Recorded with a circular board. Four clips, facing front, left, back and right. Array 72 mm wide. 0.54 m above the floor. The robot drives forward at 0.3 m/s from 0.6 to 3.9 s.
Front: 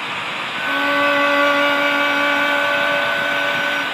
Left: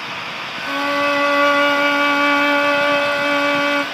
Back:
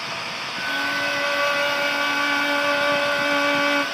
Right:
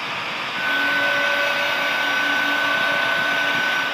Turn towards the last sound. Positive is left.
turn(degrees=110)